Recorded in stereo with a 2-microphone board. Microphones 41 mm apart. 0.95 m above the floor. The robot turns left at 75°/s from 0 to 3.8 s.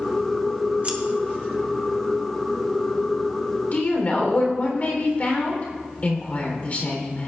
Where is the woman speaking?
45° left (ahead or behind), 3 m; by 7.3 s 40° left (ahead or behind), 3 m.